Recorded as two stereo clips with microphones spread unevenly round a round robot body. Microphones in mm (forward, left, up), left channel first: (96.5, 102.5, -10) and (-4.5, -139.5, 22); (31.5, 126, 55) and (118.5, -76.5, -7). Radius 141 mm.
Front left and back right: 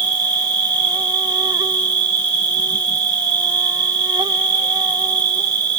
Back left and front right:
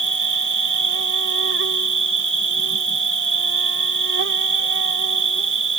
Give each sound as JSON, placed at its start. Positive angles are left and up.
{"t": 0.0, "sound": "an insect", "azimuth_deg": -40}